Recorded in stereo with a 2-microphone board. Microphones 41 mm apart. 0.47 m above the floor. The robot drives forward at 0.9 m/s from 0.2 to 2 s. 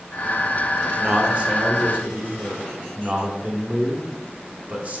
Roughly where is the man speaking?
Right.